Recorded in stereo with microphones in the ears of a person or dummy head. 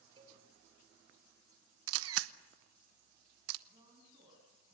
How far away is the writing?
I don't hear writing.